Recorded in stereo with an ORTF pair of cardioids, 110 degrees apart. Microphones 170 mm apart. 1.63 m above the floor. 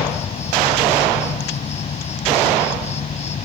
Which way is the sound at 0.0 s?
40° left.